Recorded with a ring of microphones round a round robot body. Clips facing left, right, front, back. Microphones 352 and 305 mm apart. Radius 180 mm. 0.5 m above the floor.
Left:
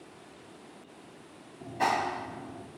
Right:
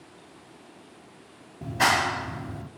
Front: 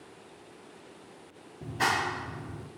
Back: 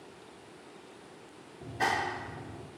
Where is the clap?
65° right, 0.6 m.